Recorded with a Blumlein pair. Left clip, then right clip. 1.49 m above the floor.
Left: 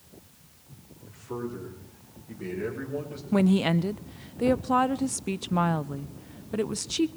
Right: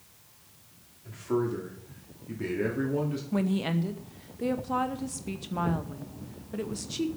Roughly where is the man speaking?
Ahead right.